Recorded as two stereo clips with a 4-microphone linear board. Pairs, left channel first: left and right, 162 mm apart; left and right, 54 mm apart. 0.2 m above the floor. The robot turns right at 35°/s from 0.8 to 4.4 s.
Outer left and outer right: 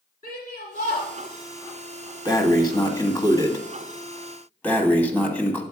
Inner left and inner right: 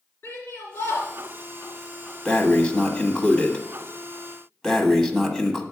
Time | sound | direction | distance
0.2 | a shout | 60° left (ahead or behind) | 2.5 m
2.2 | breathing | 25° left (ahead or behind) | 1.1 m